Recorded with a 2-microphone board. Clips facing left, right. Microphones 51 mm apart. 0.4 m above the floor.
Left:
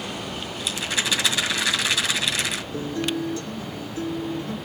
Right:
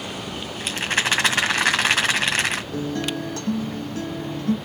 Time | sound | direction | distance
0.6 | a rattle | 50° right (ahead or behind) | 1.9 m
2.7 | a guitar | 65° right (ahead or behind) | 2 m